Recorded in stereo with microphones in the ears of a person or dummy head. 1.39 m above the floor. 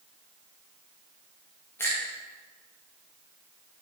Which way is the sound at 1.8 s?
10° left (ahead or behind).